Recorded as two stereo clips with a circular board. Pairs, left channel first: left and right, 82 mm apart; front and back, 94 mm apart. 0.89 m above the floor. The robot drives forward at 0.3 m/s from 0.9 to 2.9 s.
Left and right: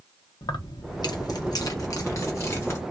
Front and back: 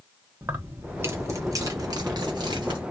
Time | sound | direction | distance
0.4 | keys jangling | 115° left | 0.6 m